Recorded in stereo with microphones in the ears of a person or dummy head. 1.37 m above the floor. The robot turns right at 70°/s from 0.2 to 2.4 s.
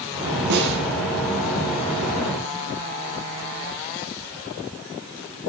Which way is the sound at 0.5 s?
50° right (ahead or behind).